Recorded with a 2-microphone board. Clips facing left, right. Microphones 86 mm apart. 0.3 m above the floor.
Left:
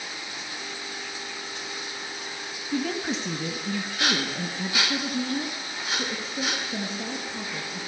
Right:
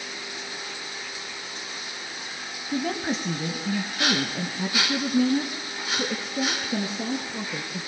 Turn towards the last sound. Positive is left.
turn(degrees=-75)  # may be behind; listen again after turning